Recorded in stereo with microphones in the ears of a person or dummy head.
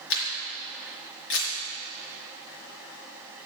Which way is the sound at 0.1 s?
70° left (ahead or behind).